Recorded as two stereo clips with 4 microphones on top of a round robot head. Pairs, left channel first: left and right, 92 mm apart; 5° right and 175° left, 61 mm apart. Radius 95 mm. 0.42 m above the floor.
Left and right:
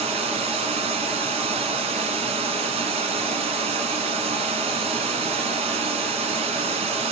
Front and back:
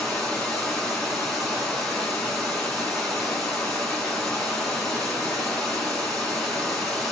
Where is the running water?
90° right, 0.9 m.